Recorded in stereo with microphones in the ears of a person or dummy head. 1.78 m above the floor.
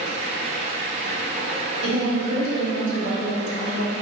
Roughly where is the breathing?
No breathing in this recording.